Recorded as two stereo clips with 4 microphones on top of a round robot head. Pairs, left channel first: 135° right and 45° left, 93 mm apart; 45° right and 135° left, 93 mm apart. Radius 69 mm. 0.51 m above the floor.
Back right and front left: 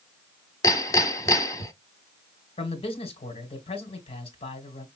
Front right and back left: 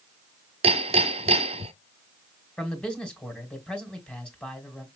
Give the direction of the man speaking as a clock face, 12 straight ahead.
4 o'clock.